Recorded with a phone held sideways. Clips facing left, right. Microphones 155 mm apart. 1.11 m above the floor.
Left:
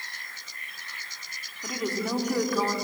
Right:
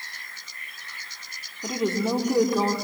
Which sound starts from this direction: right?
A woman speaking, at 1.6 s.